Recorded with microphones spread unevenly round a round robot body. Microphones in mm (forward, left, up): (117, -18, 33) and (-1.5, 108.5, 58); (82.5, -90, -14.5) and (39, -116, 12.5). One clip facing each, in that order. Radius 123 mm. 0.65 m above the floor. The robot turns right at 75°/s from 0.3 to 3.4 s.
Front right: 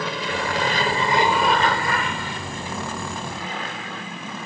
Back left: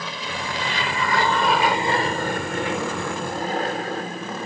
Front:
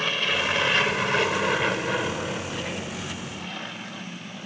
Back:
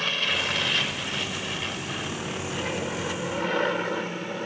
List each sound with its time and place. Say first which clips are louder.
0.0 s an aircraft: front right 5 dB, front 2 dB; 45° right; by 4.5 s 175° right